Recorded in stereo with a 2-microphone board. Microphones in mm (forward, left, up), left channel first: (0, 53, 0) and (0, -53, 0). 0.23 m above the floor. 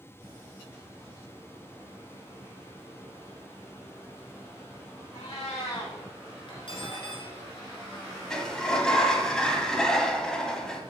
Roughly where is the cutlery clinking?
Left.